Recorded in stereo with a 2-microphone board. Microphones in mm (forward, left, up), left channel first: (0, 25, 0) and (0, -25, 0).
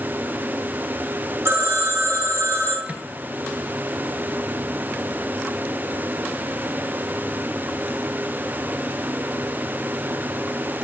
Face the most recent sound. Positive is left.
turn(degrees=-30)  # may be behind; listen again after turning